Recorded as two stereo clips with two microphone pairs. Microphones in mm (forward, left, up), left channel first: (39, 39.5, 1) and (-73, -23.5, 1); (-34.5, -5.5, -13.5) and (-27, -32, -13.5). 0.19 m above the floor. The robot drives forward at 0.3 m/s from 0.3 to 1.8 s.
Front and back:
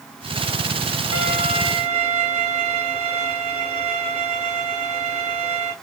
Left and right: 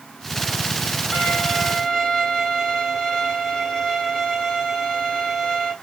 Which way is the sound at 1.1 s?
175° right.